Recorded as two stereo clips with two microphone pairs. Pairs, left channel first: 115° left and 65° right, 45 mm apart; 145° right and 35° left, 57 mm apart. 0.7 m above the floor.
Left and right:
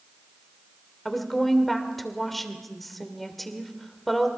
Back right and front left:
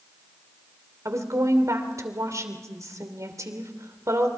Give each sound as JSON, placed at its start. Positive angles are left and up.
{"t": 1.1, "sound": "a woman speaking", "azimuth_deg": 25, "distance_m": 2.5}